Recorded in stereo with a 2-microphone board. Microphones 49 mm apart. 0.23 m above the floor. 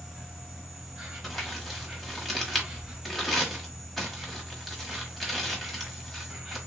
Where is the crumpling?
5° left (ahead or behind), 0.9 m.